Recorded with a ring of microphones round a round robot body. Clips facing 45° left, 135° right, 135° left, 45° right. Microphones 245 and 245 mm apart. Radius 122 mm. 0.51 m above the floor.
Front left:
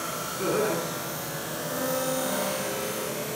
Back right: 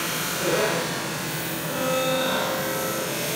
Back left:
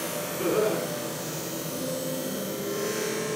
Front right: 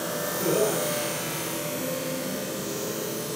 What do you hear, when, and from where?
0.4 s laughter: 80° left, 4 m